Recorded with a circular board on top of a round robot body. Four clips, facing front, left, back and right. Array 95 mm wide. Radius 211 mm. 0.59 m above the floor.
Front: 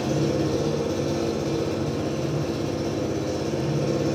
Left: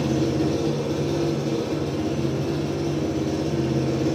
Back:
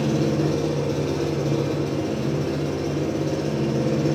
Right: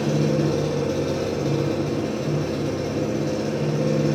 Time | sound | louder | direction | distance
0.0 | an engine running | right 1 dB, back 2 dB | 115° right | 6.5 m